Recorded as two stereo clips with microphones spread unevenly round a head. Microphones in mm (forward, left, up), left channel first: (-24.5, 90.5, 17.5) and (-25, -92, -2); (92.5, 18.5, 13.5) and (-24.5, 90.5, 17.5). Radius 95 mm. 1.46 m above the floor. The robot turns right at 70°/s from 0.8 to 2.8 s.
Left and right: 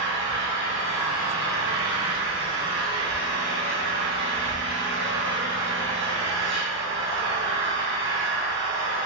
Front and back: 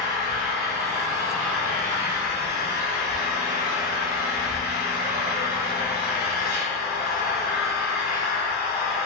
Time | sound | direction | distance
0.0 | an engine running | 160° right | 1.6 m